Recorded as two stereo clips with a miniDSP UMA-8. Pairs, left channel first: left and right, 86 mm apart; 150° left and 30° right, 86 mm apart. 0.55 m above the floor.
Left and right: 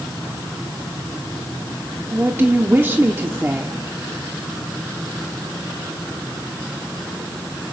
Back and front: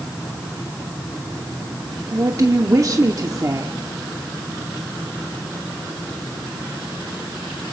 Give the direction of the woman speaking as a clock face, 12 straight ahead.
1 o'clock.